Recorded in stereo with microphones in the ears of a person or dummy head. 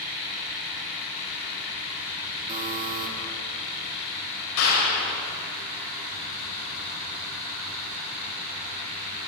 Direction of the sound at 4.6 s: 85° left.